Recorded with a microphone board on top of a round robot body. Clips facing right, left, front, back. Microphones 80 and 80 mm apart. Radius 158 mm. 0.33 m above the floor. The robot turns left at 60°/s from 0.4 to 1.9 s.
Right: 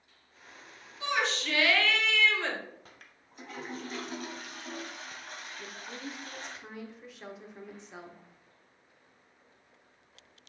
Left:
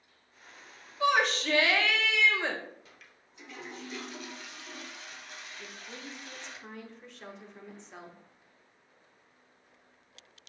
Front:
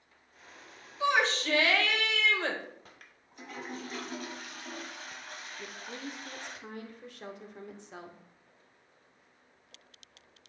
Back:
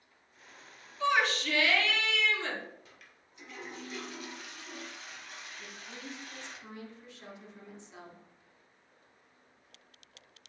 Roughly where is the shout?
Left.